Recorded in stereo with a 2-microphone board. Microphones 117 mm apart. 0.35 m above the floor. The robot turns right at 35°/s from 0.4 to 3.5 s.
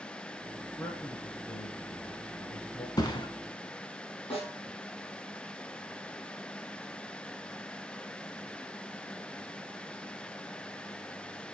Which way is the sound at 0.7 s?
10° left.